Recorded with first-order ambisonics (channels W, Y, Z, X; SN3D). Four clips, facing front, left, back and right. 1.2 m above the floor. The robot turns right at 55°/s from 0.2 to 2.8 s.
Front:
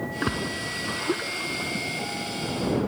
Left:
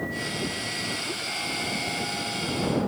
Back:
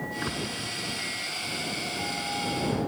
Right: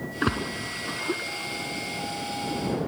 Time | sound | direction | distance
0.2 | a splash | 70° right | ?